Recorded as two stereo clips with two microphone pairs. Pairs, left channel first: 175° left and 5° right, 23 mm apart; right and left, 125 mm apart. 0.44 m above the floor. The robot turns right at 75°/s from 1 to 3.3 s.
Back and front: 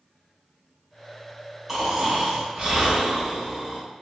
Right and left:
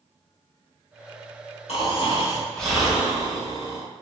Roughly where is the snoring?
Right.